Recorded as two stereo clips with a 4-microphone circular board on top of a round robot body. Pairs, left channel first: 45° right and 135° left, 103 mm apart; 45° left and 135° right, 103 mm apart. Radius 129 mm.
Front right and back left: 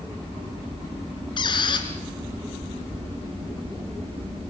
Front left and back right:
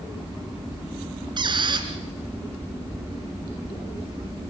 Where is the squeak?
90° right, 2.5 m.